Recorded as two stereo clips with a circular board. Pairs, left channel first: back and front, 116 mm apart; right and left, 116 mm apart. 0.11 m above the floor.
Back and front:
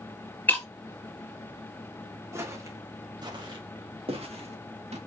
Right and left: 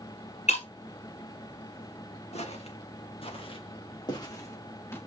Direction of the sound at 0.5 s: 105° right.